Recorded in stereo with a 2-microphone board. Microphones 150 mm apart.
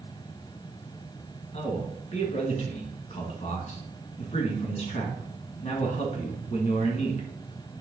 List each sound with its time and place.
1.5 s a man speaking: 50° left (ahead or behind), 2 m